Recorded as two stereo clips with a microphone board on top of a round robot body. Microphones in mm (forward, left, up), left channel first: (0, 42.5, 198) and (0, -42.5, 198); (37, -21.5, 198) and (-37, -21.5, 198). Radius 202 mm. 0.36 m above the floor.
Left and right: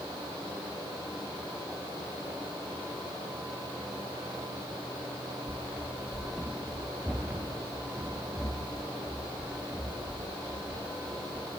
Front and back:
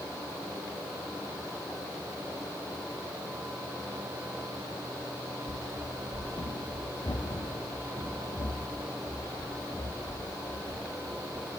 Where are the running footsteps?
5° left, 2.5 m; by 11.5 s 20° right, 8.5 m.